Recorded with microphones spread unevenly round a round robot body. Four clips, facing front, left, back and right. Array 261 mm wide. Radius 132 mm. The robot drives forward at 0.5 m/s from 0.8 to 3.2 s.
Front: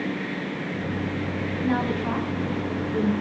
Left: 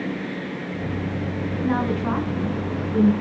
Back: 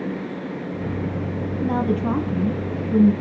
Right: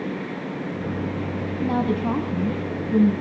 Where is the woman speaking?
150° right, 3 m; by 3.1 s 160° right, 3.5 m.